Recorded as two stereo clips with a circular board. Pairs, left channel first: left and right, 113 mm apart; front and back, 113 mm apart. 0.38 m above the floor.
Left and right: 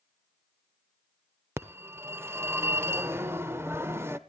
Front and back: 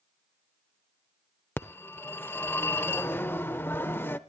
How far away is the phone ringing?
About 0.8 m.